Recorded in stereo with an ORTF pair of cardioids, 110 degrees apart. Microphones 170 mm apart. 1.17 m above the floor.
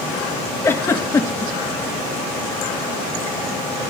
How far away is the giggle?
About 1.7 m.